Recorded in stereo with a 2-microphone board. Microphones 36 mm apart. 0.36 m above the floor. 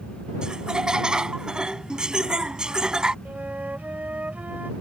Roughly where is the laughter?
Right.